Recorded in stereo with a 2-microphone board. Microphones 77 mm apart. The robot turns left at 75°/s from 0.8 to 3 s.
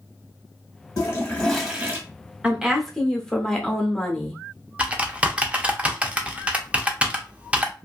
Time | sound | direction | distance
1.0 | a toilet flushing | 45° left | 0.9 m
2.4 | a woman speaking | 155° right | 0.8 m
4.8 | typing on a keyboard | 15° right (ahead or behind) | 0.5 m